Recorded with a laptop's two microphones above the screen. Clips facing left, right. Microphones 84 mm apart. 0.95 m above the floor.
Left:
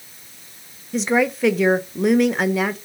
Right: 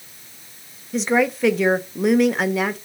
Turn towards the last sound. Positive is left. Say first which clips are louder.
# even
turn(degrees=0)  # may be behind; listen again after turning